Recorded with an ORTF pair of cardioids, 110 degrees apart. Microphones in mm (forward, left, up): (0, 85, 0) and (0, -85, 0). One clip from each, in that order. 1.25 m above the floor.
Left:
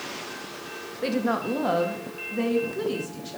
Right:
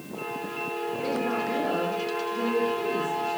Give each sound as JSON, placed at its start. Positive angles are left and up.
{"t": 1.0, "sound": "a woman speaking", "azimuth_deg": 50, "distance_m": 1.9}